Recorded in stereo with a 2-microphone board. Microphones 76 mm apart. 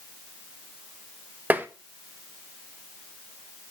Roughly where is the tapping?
Right.